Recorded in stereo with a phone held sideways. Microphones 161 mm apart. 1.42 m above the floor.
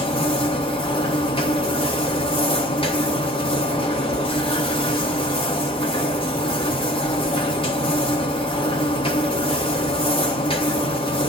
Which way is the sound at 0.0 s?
35° left (ahead or behind).